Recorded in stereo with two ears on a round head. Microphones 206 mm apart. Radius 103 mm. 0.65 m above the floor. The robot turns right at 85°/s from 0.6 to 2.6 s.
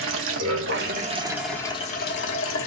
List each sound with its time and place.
0.0 s running water: 75° right, 0.9 m; by 2.7 s 95° left, 0.9 m